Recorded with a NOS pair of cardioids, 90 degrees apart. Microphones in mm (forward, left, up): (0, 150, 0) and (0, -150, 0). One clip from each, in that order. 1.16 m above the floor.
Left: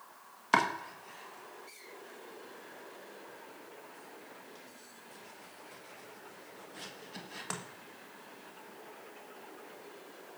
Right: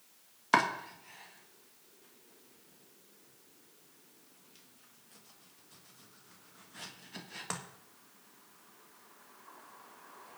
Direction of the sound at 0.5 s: Straight ahead.